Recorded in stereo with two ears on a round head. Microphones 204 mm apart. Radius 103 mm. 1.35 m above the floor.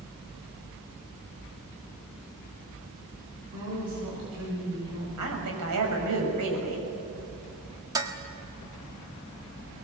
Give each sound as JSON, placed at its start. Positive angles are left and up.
{"t": 3.5, "sound": "a woman speaking", "side_deg": -85, "distance_m": 8.0}
{"t": 5.2, "sound": "a woman speaking", "side_deg": -90, "distance_m": 6.5}
{"t": 8.0, "sound": "dishes clattering", "side_deg": -15, "distance_m": 1.6}